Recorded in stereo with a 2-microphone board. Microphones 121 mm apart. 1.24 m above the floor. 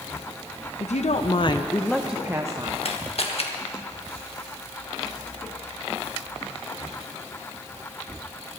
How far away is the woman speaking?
About 0.9 m.